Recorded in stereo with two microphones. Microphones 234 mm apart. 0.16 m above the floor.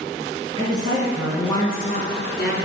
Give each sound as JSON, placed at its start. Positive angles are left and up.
{"t": 0.6, "sound": "a woman speaking", "side_deg": -25, "distance_m": 1.9}